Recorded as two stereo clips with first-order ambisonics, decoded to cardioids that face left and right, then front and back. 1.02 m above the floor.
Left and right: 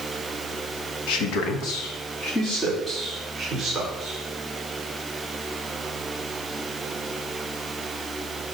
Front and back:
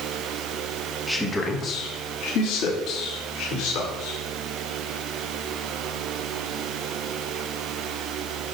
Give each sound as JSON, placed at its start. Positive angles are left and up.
{"t": 1.1, "sound": "a man speaking", "azimuth_deg": 90, "distance_m": 1.2}